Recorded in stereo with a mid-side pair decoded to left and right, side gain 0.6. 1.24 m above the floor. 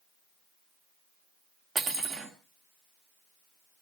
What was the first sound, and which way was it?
Cutlery clinking, 40° right.